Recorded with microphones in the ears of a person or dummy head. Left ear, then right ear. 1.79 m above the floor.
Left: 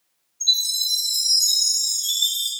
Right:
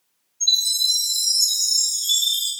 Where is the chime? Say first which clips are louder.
Right 1 dB; 15° left (ahead or behind), 0.7 m.